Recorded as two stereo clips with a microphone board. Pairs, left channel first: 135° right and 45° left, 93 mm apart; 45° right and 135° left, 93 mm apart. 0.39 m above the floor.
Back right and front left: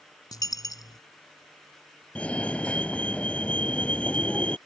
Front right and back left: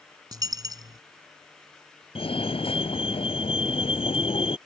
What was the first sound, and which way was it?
A dropped coin, straight behind.